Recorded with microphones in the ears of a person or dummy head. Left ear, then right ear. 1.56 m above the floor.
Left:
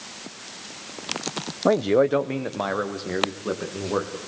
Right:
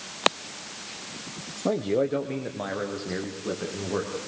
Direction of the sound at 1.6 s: 65° left (ahead or behind).